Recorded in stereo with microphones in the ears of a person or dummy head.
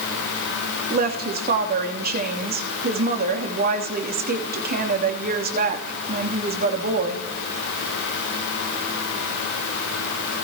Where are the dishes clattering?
No dishes clattering in this recording.